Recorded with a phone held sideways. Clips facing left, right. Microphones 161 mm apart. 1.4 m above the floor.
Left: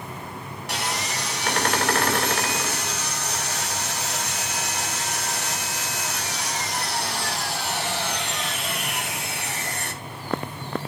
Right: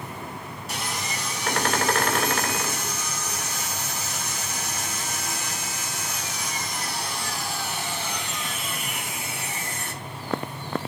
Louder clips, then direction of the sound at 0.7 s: Left 3 dB; 70° left (ahead or behind).